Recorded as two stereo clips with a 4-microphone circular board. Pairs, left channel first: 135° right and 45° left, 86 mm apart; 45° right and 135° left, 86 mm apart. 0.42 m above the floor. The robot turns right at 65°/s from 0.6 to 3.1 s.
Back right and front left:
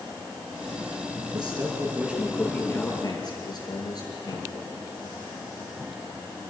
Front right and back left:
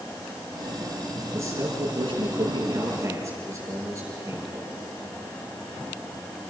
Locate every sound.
1.3 s a man speaking: 75° left, 7.5 m; by 4.7 s 170° right, 7.5 m